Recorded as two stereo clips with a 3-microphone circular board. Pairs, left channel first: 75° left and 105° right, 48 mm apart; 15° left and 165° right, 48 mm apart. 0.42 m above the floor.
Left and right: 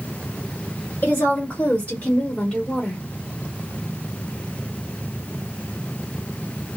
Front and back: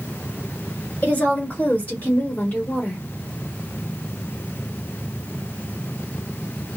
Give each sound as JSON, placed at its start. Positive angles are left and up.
{"t": 1.0, "sound": "a woman speaking", "azimuth_deg": 65, "distance_m": 1.9}